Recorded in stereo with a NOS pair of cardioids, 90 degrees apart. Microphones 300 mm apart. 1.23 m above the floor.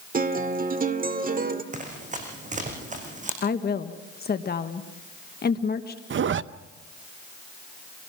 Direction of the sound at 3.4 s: 35° left.